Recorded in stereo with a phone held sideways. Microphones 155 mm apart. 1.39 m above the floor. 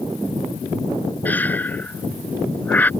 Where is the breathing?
10° left (ahead or behind).